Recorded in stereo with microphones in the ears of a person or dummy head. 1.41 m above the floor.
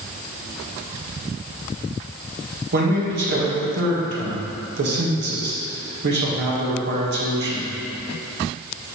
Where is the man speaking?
60° right (ahead or behind), 1.8 m.